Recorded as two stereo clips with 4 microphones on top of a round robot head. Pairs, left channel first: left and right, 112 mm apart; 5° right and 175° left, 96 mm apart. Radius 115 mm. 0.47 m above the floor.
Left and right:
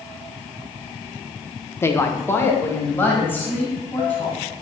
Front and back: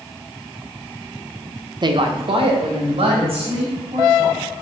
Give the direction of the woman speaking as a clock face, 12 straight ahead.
7 o'clock.